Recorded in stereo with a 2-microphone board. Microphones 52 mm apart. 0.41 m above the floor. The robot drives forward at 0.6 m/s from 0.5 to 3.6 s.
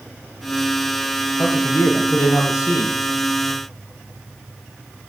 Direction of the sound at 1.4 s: 80° left.